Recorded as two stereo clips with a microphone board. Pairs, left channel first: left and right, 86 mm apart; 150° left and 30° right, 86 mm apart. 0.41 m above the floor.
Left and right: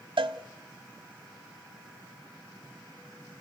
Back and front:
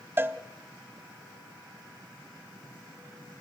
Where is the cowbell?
95° right, 1.1 m.